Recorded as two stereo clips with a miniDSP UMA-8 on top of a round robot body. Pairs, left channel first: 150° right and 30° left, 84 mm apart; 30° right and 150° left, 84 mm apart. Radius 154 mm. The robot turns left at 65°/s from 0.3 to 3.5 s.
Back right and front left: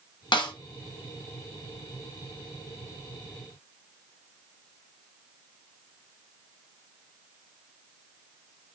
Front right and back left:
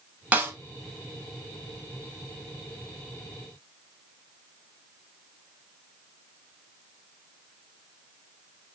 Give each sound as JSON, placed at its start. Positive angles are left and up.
{"t": 0.3, "sound": "a snare drum", "azimuth_deg": -140, "distance_m": 1.2}